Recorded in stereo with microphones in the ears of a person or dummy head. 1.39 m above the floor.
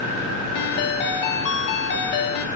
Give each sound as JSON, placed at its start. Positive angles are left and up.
{"t": 0.6, "sound": "a ringtone", "side_deg": 45, "distance_m": 0.8}